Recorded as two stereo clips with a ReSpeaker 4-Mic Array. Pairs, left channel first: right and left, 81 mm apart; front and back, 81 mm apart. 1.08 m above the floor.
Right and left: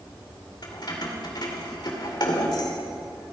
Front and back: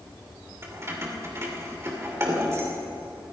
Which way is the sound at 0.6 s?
125° right.